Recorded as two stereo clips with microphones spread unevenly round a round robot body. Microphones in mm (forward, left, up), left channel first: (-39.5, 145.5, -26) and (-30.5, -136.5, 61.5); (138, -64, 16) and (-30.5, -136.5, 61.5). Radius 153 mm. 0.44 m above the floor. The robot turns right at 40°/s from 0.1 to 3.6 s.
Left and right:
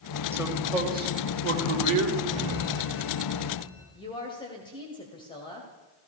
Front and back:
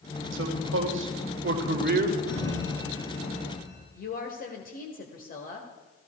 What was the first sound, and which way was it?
A man speaking, straight behind.